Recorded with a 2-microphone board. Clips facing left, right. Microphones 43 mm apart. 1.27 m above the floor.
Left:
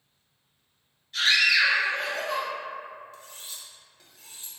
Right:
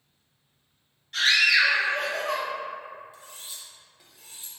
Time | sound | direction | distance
1.1 | a scream | 70° right (ahead or behind) | 1.4 m
3.1 | cutlery clinking | 10° right (ahead or behind) | 0.7 m